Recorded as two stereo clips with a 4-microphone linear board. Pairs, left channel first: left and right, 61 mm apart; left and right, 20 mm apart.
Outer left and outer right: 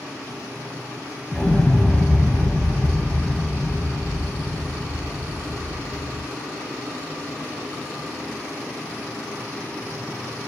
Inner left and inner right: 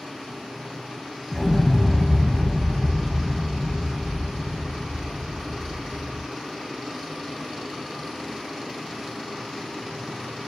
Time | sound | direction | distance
1.3 | an explosion | 20° left (ahead or behind) | 0.7 m